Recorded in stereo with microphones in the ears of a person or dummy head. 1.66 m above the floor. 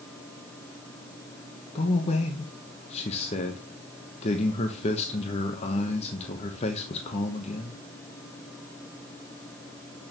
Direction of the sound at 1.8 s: 30° left (ahead or behind).